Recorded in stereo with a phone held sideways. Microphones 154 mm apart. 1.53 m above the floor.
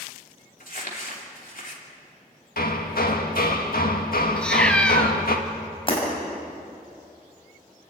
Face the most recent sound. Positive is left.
turn(degrees=35)  # may be behind; listen again after turning